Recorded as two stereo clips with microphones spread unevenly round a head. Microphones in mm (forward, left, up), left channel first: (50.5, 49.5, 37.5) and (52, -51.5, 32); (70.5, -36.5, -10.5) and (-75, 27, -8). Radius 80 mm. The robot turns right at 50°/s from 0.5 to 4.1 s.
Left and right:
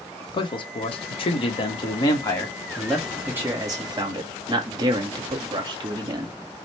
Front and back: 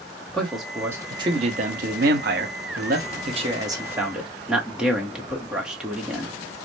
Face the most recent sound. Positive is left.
turn(degrees=-120)